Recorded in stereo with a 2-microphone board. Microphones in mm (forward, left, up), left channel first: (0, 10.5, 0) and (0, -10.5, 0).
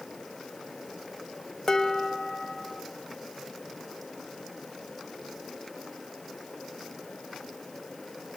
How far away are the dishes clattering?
About 0.9 m.